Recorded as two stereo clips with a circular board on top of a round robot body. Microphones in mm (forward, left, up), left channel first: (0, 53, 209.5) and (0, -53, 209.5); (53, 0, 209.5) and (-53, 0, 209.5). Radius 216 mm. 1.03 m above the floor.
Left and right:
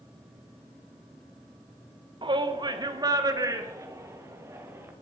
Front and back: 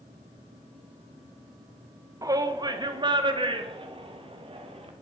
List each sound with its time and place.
2.2 s a shout: 125° right, 1.6 m; by 4.9 s 155° right, 3 m